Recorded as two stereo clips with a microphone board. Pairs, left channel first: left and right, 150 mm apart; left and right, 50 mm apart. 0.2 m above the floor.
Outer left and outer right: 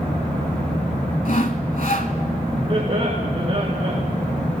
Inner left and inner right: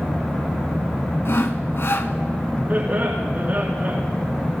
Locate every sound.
1.2 s sawing: 55° left (ahead or behind), 1.0 m
2.7 s laughter: 40° right (ahead or behind), 2.5 m